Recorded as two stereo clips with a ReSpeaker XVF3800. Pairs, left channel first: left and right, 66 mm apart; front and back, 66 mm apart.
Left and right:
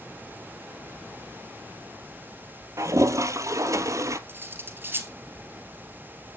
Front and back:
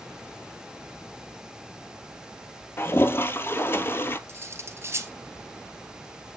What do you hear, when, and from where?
2.8 s a toilet flushing: 55° right, 0.7 m
4.3 s cutlery clinking: 140° right, 1.4 m